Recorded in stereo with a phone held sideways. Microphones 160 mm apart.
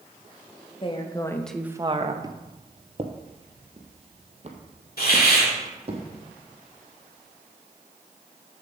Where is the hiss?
80° left, 2.5 m.